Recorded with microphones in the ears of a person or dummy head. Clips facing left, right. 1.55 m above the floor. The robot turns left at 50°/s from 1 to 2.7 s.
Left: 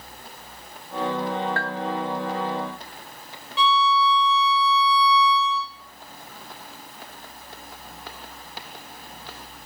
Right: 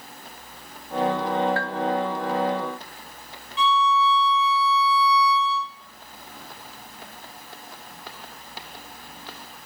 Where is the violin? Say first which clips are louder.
Even; 60° left (ahead or behind), 0.9 m.